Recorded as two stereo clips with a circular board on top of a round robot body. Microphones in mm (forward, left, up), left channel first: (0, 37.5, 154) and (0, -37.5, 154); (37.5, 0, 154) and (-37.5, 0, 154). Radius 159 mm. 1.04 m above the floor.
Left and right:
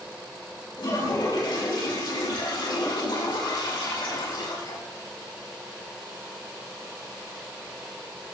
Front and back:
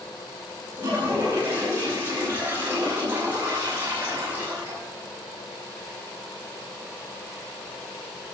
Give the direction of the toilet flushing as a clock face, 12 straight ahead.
8 o'clock.